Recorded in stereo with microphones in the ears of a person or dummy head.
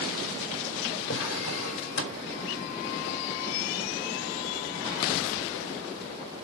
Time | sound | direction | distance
1.1 | a drawer | 70° left (ahead or behind) | 1.6 m